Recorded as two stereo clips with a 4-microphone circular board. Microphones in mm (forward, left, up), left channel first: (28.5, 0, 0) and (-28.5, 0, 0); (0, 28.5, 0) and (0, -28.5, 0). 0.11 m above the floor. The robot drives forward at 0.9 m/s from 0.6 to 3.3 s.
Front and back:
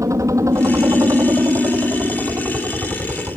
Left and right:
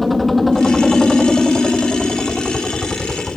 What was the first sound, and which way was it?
A helicopter, straight behind.